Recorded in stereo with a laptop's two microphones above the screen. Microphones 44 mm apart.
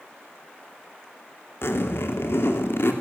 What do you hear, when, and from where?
1.6 s a zipper: 70° left (ahead or behind), 2.5 m